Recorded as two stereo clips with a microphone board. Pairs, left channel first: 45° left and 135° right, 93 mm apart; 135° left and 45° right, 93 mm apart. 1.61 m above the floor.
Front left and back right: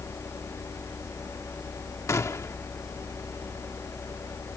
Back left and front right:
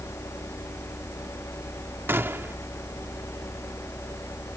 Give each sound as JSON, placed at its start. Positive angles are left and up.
{"t": 2.1, "sound": "a gunshot", "azimuth_deg": 10}